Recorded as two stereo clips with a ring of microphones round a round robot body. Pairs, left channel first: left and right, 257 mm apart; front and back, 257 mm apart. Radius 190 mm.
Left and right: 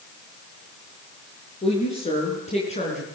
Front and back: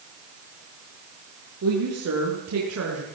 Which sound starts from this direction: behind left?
A woman speaking, at 1.6 s.